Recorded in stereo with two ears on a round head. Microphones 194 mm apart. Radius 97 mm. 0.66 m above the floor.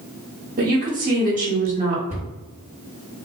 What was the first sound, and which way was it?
A woman speaking, 40° right (ahead or behind).